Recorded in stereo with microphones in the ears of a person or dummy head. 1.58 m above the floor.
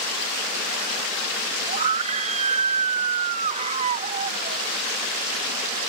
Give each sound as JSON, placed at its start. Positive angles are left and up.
{"t": 1.7, "sound": "a scream", "side_deg": -40}